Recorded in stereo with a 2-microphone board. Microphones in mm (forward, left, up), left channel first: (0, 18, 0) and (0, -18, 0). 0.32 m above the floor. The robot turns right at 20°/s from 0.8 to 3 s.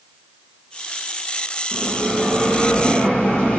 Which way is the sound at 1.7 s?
5° left (ahead or behind).